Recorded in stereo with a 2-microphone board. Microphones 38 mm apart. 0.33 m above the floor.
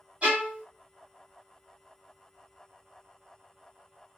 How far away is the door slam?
I don't hear a door slam.